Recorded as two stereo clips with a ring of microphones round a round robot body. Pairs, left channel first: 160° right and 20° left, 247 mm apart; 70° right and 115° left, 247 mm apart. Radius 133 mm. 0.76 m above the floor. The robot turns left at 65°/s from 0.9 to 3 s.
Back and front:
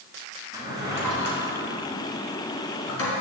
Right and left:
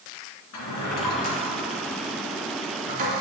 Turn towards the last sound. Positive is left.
turn(degrees=170)